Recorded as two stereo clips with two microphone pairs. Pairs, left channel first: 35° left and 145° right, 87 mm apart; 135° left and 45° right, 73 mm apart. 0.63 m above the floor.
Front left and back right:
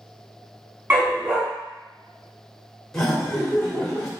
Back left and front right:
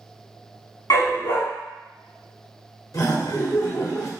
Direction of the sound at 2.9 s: 120° left.